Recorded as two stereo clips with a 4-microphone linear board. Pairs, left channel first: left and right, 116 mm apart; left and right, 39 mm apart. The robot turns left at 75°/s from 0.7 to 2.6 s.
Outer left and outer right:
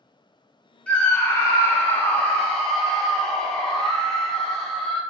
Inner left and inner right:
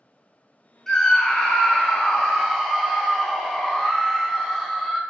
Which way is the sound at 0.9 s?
10° left (ahead or behind).